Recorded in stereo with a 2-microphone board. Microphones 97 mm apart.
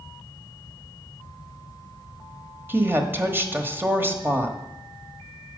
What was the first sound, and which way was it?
A woman speaking, 20° right (ahead or behind).